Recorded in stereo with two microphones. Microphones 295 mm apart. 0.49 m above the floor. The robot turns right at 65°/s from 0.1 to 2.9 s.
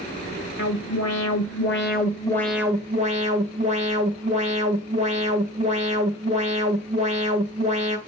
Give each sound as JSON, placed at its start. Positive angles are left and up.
{"t": 0.6, "sound": "an alarm", "azimuth_deg": 55, "distance_m": 1.8}